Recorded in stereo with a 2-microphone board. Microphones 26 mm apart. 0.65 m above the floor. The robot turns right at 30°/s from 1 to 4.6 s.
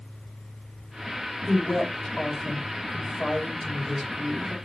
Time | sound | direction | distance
1.5 | a woman speaking | 125° left | 3 m